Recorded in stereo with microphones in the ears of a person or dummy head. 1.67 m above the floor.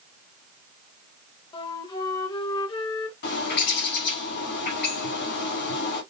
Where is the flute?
25° left (ahead or behind), 0.8 m.